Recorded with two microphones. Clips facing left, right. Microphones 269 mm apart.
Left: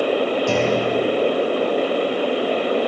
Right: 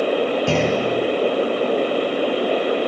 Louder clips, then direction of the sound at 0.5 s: Even; 70° right (ahead or behind).